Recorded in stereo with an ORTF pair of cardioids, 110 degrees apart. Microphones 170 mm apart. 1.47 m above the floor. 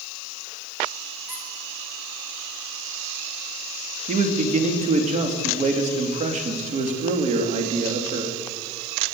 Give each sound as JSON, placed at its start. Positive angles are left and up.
{"t": 1.3, "sound": "a squeak", "azimuth_deg": -15, "distance_m": 4.0}
{"t": 4.1, "sound": "a man speaking", "azimuth_deg": -45, "distance_m": 2.5}